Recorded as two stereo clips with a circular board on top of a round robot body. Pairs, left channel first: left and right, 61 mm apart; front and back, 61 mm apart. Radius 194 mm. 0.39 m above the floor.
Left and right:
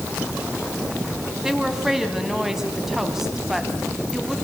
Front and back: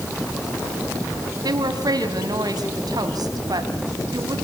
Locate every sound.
1.4 s a woman speaking: 175° right, 3.5 m